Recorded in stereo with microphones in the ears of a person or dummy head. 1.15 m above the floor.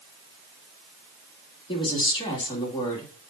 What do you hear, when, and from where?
1.7 s a woman speaking: 30° left (ahead or behind), 2 m